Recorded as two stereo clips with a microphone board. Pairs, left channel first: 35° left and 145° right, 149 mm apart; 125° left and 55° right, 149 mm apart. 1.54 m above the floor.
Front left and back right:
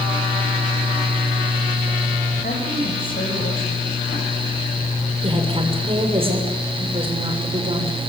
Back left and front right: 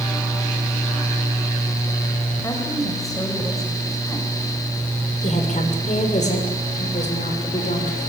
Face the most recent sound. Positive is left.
turn(degrees=160)